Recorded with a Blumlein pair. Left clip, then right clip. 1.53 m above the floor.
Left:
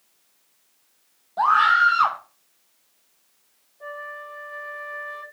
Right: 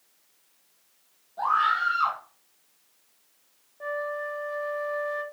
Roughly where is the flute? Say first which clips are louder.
Right 4 dB; ahead right.